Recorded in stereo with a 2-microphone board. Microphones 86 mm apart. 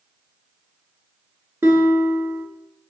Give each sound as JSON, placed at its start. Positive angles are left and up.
{"t": 1.6, "sound": "a guitar", "side_deg": -30, "distance_m": 0.9}